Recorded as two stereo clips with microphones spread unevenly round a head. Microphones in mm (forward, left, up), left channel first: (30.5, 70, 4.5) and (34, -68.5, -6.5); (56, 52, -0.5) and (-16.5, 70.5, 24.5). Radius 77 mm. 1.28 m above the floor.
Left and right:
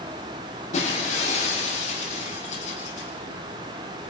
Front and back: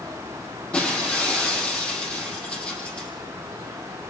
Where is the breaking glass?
60° left, 8 m.